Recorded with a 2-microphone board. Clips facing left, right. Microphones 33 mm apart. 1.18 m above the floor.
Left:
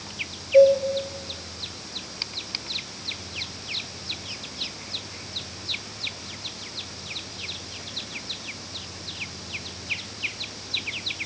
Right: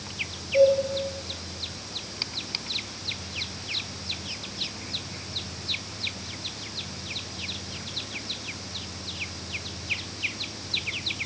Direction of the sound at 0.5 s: 30° left (ahead or behind).